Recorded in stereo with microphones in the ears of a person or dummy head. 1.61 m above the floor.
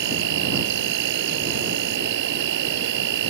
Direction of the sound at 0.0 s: 60° right (ahead or behind).